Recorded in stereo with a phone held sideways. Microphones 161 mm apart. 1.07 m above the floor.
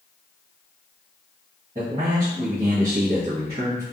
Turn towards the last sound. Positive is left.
turn(degrees=-55)  # may be behind; listen again after turning